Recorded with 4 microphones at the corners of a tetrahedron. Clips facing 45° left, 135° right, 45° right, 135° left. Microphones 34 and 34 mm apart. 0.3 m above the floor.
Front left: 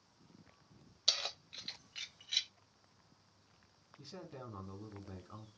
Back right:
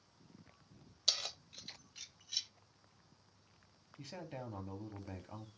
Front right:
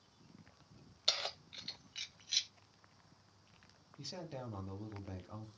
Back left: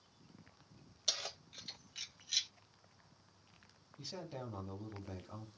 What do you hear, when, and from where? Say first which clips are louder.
1.1 s keys jangling: front left 2 dB, front right 4 dB; 30° right, 0.7 m; by 2.5 s 35° left, 1.0 m
4.0 s a man speaking: back right 3 dB, even; 115° right, 5.5 m